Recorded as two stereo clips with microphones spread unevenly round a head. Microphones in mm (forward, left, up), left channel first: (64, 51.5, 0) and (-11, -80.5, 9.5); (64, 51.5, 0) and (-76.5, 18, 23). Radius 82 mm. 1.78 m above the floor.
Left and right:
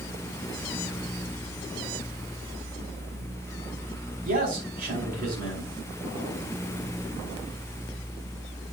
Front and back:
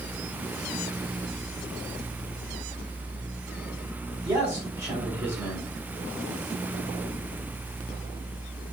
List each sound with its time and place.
4.2 s a man speaking: 90° right, 5 m